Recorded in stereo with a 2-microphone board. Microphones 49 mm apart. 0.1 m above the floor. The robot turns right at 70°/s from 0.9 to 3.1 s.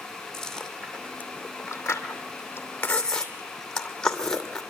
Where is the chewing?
10° left (ahead or behind), 2.5 m; by 4.6 s 15° left (ahead or behind), 2.5 m.